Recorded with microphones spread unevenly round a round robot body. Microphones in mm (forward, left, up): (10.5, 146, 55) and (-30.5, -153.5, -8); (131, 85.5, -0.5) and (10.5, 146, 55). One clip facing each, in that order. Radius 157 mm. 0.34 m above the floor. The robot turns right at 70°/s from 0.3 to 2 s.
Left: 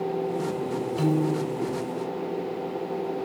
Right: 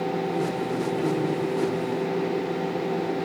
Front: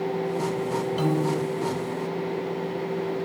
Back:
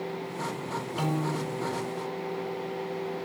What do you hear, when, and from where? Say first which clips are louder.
1.0 s a piano: left 3 dB, front 4 dB; 50° left, 1.5 m; by 1.6 s 95° left, 1.5 m